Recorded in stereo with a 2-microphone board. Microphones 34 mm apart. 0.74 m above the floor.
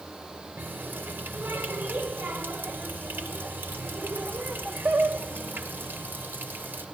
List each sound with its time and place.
0.6 s a running tap: 85° right, 1.8 m